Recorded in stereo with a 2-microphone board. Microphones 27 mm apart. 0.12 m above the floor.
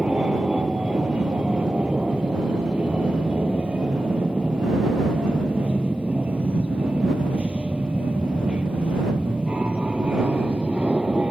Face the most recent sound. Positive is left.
turn(degrees=-50)  # may be behind; listen again after turning